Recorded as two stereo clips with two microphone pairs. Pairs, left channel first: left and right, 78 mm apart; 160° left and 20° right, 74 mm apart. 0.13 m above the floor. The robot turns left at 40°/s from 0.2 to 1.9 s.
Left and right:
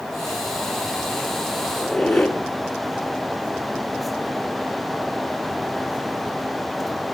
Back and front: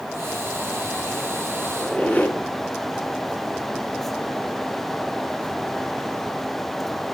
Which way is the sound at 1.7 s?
175° left.